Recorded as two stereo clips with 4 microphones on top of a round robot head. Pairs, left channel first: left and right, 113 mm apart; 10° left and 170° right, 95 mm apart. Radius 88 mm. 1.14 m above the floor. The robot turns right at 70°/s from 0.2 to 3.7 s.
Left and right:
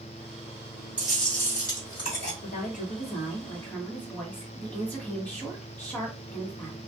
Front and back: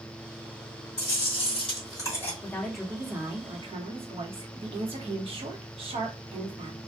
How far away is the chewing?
About 1.5 m.